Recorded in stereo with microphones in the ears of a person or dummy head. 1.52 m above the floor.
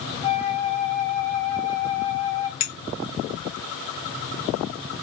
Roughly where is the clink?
Left.